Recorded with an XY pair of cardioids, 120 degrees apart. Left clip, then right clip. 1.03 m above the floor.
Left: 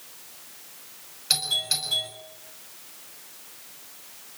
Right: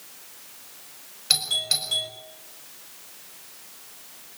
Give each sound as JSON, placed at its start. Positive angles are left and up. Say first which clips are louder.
{"t": 1.3, "sound": "a doorbell", "louder": "right 2 dB", "azimuth_deg": -15, "distance_m": 6.5}